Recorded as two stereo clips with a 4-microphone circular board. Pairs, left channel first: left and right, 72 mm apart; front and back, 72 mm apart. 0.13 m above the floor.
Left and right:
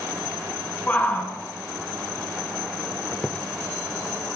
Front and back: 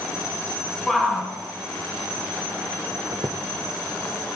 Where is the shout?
85° left, 1.7 m.